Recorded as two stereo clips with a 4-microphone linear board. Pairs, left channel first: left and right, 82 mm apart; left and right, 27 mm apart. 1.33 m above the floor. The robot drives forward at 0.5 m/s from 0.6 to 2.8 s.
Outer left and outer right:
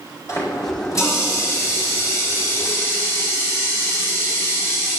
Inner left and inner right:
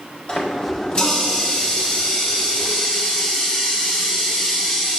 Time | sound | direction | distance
0.3 | a running tap | 40° left (ahead or behind) | 4.5 m